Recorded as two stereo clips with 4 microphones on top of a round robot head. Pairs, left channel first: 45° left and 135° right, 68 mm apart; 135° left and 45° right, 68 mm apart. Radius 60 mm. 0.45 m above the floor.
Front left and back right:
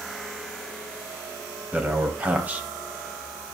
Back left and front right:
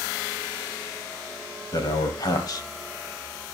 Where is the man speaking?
160° left, 3 m.